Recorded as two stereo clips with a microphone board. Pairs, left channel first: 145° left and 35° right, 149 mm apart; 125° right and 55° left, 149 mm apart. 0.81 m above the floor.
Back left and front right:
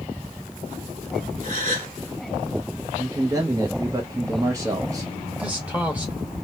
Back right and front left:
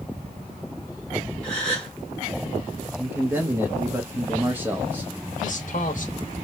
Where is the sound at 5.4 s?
115° right, 0.9 m.